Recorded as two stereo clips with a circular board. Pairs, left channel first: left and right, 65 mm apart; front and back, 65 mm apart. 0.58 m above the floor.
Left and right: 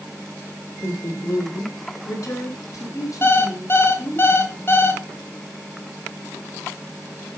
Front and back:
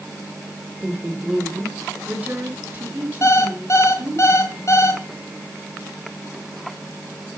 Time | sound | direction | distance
0.8 | a woman speaking | 105° left | 2.0 m
3.2 | an alarm clock | 40° left | 1.8 m